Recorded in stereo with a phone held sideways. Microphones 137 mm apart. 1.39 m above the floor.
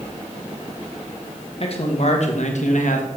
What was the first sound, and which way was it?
A man speaking, 45° left (ahead or behind).